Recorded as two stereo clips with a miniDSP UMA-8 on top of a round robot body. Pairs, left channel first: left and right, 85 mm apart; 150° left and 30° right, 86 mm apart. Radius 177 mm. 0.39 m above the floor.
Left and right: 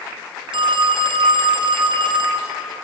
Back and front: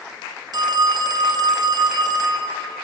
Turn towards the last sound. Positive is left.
turn(degrees=-70)